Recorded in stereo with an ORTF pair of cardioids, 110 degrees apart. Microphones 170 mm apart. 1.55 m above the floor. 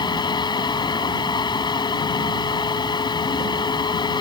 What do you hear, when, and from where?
0.0 s a fan: 25° left